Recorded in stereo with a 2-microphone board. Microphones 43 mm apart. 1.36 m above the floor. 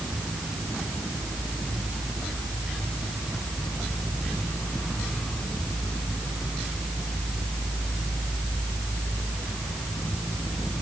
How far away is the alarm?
I don't hear an alarm.